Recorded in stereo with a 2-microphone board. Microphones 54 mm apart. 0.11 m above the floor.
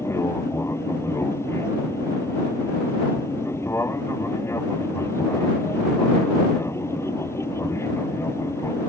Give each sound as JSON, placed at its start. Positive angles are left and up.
{"t": 0.0, "sound": "an aircraft", "side_deg": 60}